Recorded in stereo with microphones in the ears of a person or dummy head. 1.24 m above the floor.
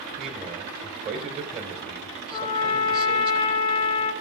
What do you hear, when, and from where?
0.2 s a man speaking: 35° right (ahead or behind), 3.5 m
2.3 s a trumpet: 25° left (ahead or behind), 3 m